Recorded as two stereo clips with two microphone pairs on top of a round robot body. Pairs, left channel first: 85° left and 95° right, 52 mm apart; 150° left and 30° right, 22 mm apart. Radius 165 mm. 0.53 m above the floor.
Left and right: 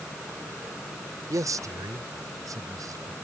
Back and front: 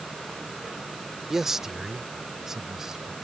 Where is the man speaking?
105° right; by 3.1 s 100° right.